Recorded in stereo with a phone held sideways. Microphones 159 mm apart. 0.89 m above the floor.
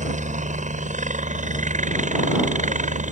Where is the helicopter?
50° right (ahead or behind).